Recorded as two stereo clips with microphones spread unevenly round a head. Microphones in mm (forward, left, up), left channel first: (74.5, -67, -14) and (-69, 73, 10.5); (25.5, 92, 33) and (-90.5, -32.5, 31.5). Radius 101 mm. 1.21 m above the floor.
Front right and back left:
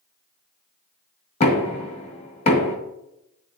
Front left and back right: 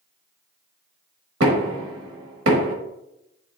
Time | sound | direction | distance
1.4 | knocking | 100° right | 1.5 m